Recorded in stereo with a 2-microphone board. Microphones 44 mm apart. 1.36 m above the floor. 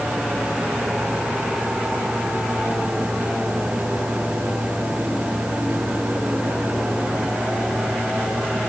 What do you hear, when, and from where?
Only background noise.